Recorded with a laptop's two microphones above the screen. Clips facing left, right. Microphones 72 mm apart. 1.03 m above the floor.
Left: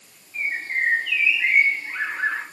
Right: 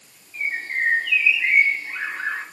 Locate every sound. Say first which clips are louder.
0.3 s a bird: even; 35° left (ahead or behind), 3.5 m